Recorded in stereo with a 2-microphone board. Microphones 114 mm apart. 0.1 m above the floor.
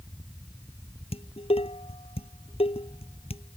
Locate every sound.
1.1 s dishes clattering: 60° left (ahead or behind)